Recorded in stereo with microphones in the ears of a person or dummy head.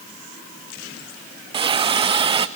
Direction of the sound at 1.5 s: 25° right (ahead or behind).